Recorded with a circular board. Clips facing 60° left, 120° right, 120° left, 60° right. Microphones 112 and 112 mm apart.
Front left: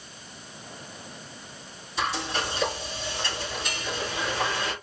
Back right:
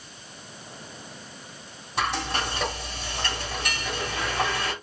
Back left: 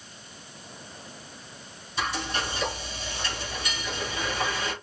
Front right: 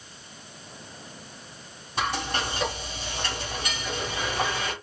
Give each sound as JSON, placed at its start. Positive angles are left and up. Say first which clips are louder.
{"t": 2.0, "sound": "frying", "louder": "back right 1 dB, front right 2 dB", "azimuth_deg": -90, "distance_m": 3.0}